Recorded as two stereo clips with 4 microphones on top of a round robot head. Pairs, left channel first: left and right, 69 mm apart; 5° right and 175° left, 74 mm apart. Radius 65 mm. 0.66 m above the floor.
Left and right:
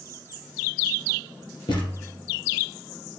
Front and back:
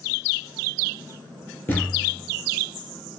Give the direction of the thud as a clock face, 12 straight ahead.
10 o'clock.